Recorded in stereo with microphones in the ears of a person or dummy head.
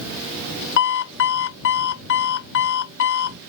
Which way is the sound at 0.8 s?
65° left (ahead or behind).